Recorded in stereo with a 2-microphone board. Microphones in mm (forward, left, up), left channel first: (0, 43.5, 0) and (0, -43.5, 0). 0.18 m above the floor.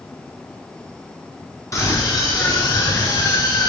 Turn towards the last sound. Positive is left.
turn(degrees=50)  # may be behind; listen again after turning